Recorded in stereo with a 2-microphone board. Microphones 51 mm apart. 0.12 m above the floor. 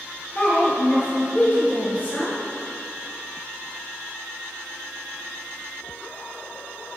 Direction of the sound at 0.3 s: 30° left (ahead or behind).